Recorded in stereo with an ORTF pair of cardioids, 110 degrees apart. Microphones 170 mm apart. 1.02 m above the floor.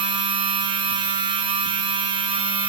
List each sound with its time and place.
0.0 s a machine running: 30° right, 0.9 m